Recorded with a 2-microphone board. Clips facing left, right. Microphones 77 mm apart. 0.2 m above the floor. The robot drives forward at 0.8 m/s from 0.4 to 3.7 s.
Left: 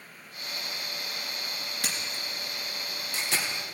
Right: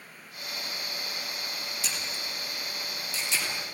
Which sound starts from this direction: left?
A camera shutter, at 1.8 s.